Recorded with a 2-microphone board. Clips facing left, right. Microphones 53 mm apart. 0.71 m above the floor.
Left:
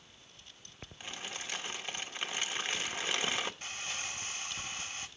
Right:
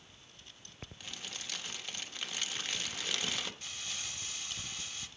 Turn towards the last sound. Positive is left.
turn(degrees=40)  # may be behind; listen again after turning